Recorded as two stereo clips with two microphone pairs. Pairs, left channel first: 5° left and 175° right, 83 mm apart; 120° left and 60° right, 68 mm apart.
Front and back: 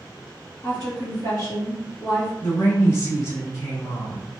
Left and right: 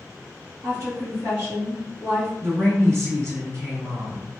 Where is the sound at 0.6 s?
35° right, 2.0 m.